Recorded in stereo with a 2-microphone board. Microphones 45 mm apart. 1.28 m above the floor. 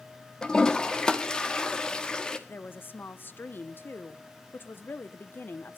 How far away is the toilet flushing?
About 1.4 m.